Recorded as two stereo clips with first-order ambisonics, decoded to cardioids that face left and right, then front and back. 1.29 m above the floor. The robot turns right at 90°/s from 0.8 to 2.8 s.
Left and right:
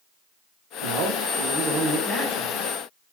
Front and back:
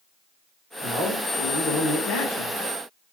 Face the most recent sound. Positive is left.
turn(degrees=75)